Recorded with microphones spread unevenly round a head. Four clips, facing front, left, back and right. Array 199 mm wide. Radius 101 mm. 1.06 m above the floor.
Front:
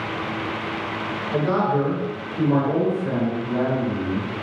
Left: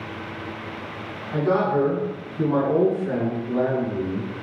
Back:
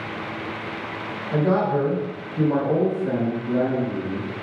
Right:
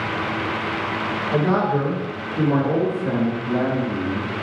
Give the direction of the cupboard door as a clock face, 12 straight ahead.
I don't hear a cupboard door.